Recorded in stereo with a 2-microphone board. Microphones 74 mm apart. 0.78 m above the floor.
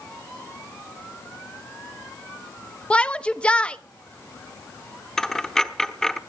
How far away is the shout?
About 0.8 m.